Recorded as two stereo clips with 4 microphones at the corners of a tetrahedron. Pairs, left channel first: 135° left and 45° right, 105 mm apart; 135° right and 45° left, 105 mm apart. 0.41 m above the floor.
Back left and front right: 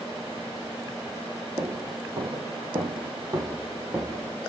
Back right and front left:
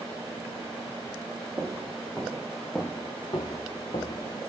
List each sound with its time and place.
1.6 s footsteps: 5° right, 0.8 m; by 4.3 s 120° right, 1.0 m